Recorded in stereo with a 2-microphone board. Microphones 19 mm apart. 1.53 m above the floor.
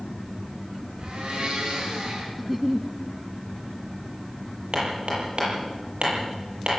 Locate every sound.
1.0 s a blender: 65° right (ahead or behind), 9.5 m
2.4 s a giggle: 15° right (ahead or behind), 1.1 m
4.7 s hammering: 60° right (ahead or behind), 9 m